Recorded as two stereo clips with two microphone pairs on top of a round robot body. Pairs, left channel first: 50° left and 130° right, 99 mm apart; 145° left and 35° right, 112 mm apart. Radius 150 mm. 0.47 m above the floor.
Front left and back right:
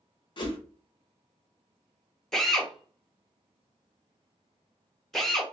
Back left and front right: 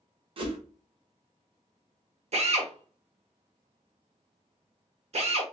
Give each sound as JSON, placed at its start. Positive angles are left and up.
{"t": 0.4, "sound": "a whoosh", "azimuth_deg": 5, "distance_m": 0.8}
{"t": 2.3, "sound": "a drill", "azimuth_deg": -40, "distance_m": 1.1}